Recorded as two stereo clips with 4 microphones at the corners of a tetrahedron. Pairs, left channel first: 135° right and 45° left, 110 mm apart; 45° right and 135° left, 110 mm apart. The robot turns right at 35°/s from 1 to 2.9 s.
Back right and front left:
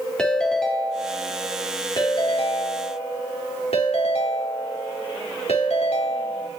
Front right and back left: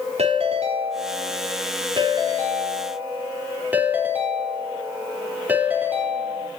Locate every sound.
0.2 s a ringtone: 140° left, 4 m; by 6.5 s 150° right, 4 m